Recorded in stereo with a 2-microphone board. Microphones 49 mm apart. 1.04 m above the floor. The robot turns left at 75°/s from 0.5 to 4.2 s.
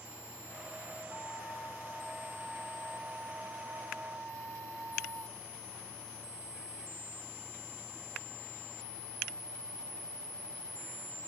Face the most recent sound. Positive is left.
turn(degrees=-135)